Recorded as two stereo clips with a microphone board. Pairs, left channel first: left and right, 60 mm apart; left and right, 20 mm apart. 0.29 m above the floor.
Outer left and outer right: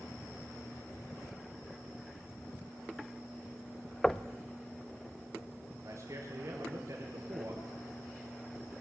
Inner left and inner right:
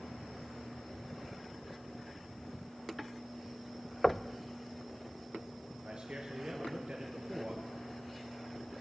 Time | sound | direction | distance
4.0 | knocking | 5° left (ahead or behind) | 0.6 m
5.8 | a man speaking | 60° right (ahead or behind) | 4 m